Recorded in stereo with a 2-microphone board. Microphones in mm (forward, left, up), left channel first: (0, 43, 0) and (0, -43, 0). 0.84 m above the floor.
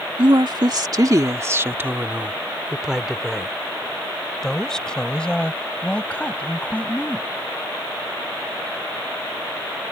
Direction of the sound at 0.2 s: 65° right (ahead or behind).